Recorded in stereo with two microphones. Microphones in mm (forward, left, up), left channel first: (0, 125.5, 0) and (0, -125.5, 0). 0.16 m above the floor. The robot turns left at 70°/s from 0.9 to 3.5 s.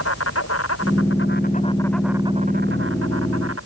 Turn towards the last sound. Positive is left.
turn(degrees=-105)